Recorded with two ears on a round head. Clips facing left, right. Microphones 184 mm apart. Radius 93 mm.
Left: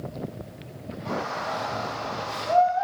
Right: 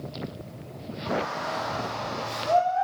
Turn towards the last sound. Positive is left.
turn(degrees=-40)  # may be behind; listen again after turning